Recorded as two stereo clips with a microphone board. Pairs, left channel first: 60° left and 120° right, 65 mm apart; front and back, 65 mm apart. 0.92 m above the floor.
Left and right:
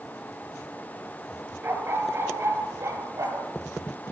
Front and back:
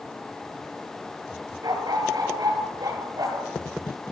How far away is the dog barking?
About 5.5 m.